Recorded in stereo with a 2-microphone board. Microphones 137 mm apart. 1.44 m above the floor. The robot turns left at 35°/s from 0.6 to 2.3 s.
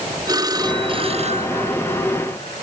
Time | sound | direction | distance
0.3 | a phone ringing | 30° right (ahead or behind) | ?